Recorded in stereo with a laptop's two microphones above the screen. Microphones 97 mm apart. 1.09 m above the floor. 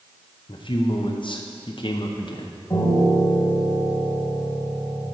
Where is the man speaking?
55° left (ahead or behind), 0.6 m.